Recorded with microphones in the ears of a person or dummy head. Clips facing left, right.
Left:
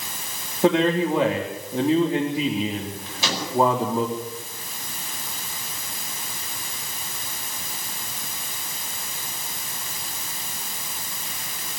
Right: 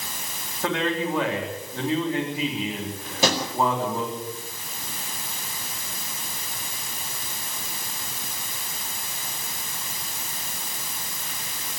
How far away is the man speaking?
About 3.5 m.